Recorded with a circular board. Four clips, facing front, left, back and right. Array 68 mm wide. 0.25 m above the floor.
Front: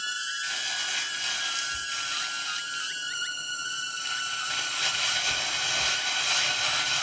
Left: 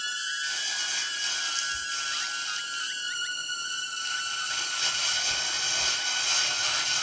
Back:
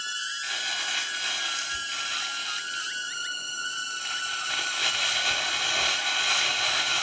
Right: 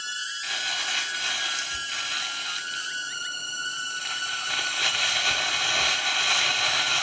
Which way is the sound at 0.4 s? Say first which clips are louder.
Right 3 dB, back 1 dB; 105° right.